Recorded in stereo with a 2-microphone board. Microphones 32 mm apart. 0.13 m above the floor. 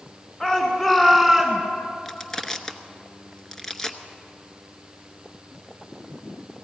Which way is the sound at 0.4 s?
20° left (ahead or behind).